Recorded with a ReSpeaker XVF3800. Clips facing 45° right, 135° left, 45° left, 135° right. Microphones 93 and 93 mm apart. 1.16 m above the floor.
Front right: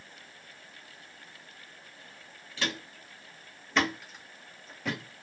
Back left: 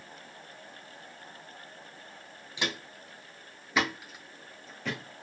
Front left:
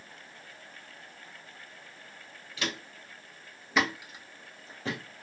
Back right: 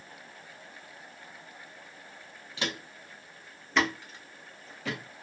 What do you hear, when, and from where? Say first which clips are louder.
2.6 s footsteps: even, back right 1 dB; 170° right, 1.3 m; by 5.0 s 40° left, 1.3 m